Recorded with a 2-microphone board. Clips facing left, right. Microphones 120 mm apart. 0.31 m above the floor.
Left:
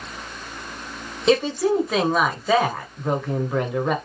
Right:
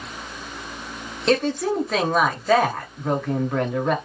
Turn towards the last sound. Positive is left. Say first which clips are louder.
# left 2 dB
turn(degrees=5)  # may be behind; listen again after turning